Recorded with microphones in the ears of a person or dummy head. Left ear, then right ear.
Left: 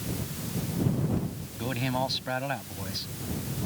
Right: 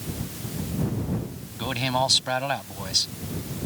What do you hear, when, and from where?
1.6 s a man speaking: 40° right (ahead or behind)